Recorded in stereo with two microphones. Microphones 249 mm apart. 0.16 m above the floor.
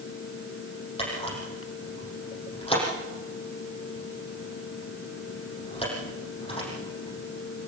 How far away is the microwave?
I don't hear a microwave.